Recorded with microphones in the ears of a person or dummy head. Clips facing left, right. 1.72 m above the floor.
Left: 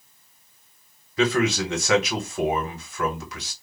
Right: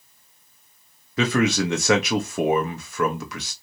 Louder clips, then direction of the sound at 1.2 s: Right 1 dB; 55° right (ahead or behind).